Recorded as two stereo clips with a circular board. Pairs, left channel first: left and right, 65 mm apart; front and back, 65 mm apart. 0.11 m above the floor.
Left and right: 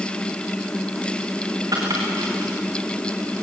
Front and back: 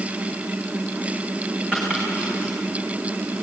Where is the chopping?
105° right, 6 m.